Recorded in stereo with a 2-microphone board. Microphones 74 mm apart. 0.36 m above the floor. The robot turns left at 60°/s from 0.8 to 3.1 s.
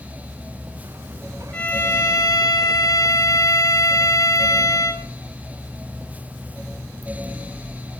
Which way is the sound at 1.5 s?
165° left.